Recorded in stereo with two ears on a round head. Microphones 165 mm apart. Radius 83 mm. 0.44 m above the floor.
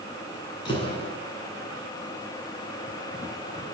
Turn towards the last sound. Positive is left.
turn(degrees=30)  # may be behind; listen again after turning